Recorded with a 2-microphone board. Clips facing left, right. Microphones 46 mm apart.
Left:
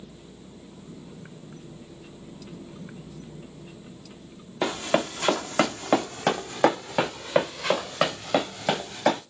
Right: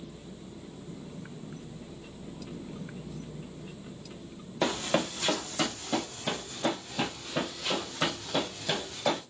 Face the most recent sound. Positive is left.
turn(degrees=60)  # may be behind; listen again after turning